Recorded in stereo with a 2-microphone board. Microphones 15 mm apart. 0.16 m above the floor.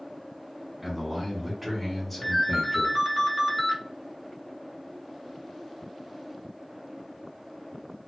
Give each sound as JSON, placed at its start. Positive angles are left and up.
{"t": 0.8, "sound": "a man speaking", "side_deg": -15, "distance_m": 1.6}
{"t": 2.2, "sound": "a ringtone", "side_deg": 20, "distance_m": 1.1}